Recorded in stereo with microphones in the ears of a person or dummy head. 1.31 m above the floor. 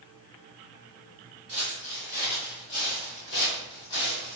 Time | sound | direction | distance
1.5 | footsteps | 25° left (ahead or behind) | 1.3 m